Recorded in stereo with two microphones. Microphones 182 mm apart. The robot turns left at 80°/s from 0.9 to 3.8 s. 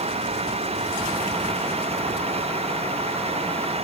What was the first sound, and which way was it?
Only background noise.